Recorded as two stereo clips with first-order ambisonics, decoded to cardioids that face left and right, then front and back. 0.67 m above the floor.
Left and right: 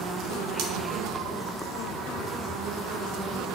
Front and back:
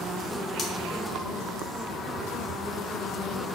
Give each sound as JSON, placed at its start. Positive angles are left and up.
{"t": 0.6, "sound": "cutlery clinking", "azimuth_deg": -65, "distance_m": 0.8}